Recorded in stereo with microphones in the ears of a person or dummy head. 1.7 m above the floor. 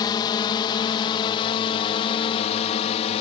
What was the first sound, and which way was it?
A drone, 20° left (ahead or behind).